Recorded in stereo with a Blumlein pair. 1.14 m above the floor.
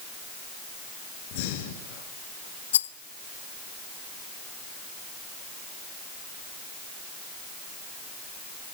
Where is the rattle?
65° left, 0.6 m.